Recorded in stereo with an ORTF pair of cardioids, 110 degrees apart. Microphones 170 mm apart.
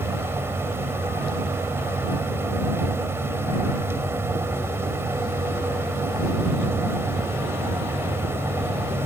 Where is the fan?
15° right.